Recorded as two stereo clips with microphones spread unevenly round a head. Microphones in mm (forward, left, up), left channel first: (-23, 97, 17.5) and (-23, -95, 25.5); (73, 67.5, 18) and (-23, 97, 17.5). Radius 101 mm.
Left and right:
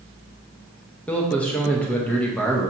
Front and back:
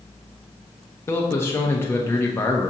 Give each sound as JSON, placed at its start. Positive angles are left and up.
{"t": 1.1, "sound": "a man speaking", "azimuth_deg": 20, "distance_m": 0.7}